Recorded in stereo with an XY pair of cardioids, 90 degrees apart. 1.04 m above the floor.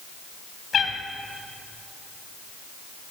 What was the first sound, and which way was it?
A cat meowing, 60° left.